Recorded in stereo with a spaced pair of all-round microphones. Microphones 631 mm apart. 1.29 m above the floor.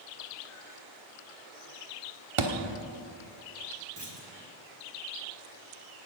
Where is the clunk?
40° right (ahead or behind), 2 m.